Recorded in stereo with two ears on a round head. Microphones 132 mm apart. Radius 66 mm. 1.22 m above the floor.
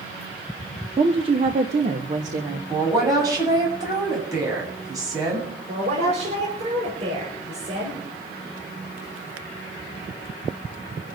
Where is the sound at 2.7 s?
25° right (ahead or behind), 8 m.